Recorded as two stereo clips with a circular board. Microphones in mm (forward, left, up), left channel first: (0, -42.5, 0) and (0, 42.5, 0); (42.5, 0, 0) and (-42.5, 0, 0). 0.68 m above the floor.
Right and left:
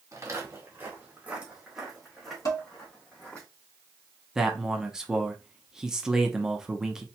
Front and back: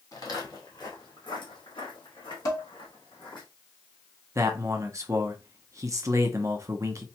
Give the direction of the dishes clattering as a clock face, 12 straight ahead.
2 o'clock.